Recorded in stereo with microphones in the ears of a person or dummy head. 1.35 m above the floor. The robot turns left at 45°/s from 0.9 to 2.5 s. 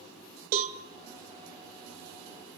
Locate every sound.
0.5 s a cowbell: 45° right (ahead or behind), 1.4 m